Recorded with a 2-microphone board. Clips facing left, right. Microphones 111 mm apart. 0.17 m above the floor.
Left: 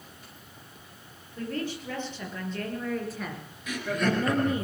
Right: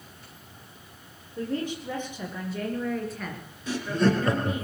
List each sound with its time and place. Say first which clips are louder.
1.4 s a woman speaking: right 3 dB; 20° right (ahead or behind), 5 m; by 4.7 s 35° left (ahead or behind), 3 m
3.7 s laughter: right 4 dB; 30° right (ahead or behind), 3 m